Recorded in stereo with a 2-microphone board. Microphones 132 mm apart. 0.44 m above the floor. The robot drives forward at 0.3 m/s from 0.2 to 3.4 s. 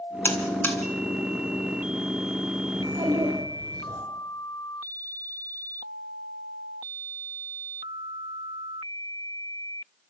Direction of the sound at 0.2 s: 15° left (ahead or behind).